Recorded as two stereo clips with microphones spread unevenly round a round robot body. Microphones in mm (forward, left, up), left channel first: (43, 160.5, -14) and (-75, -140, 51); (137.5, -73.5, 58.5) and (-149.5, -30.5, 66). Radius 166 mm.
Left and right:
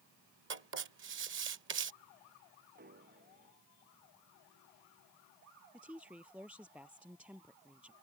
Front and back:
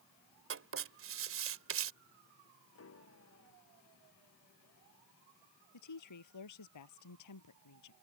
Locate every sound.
0.5 s writing: 165° right
2.8 s a piano: 50° right
5.7 s a woman speaking: 25° right